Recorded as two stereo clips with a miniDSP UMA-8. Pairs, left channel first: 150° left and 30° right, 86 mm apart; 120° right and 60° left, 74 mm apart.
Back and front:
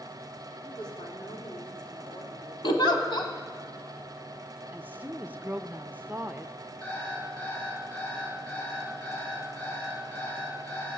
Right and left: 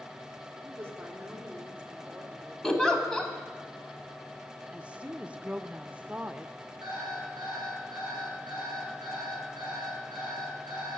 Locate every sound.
0.6 s a woman speaking: 115° left, 2.5 m; by 2.5 s 140° left, 3 m
2.6 s a giggle: 160° left, 1.3 m
4.7 s a woman speaking: 10° left, 0.5 m
6.8 s an alarm clock: 85° left, 7 m